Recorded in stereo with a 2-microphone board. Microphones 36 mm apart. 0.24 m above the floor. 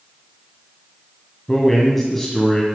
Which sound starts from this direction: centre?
A man speaking, at 1.5 s.